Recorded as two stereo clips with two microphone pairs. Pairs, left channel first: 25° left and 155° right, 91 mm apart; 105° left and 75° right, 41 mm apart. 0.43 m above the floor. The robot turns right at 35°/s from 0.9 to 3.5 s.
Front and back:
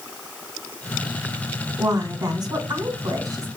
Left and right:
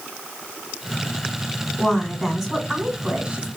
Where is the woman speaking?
Straight behind, 1.6 m; by 3.5 s 120° right, 1.6 m.